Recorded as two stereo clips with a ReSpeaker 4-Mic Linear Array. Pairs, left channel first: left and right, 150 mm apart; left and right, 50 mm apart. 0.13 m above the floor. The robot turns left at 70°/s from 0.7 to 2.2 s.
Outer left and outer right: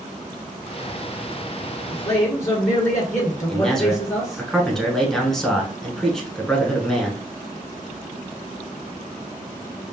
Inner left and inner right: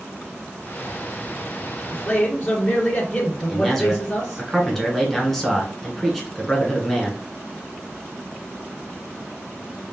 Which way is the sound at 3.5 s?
5° left (ahead or behind).